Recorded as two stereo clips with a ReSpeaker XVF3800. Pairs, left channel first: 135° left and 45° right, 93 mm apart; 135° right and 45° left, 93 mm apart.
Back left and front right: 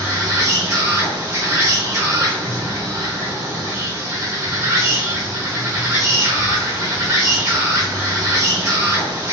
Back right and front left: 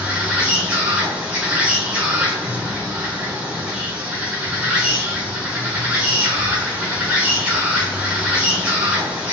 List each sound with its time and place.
0.0 s an insect: 20° right, 0.8 m